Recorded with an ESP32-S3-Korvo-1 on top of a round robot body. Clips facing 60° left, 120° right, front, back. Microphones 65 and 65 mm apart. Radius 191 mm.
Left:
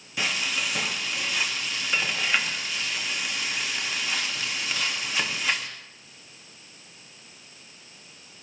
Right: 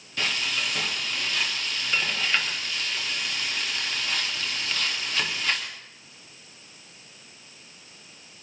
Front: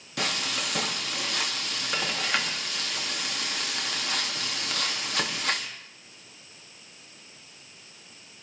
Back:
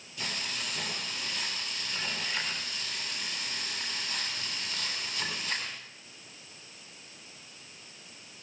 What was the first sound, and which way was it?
Frying, 20° right.